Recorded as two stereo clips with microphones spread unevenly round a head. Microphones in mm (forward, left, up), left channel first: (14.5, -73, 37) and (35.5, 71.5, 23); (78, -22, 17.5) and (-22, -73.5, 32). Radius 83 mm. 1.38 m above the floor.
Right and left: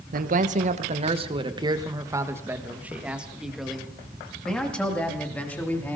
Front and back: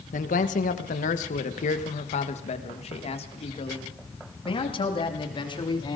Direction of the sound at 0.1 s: 55° left.